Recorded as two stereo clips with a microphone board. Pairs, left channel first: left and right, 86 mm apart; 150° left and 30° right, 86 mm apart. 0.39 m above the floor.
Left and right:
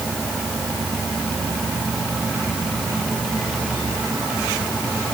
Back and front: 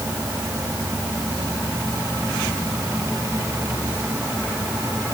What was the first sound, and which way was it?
Only background noise.